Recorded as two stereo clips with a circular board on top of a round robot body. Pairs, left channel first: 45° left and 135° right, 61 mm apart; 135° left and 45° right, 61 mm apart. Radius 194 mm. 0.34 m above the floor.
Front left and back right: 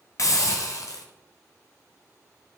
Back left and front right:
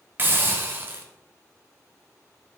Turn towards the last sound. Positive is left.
turn(degrees=15)